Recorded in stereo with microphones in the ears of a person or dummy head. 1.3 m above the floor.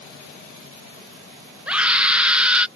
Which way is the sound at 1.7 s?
5° right (ahead or behind).